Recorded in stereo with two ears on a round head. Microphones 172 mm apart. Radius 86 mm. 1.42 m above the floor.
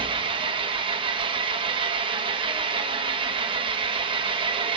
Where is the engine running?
25° right (ahead or behind), 0.8 m.